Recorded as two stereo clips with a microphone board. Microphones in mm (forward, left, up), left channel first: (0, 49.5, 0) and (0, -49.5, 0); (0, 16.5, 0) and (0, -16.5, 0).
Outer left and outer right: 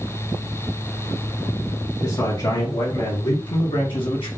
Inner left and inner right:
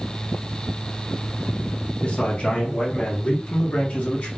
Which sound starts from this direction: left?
A man speaking, at 2.0 s.